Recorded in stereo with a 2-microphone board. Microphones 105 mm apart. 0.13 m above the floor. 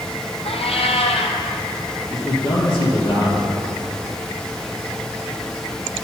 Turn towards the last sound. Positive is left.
turn(degrees=50)  # may be behind; listen again after turning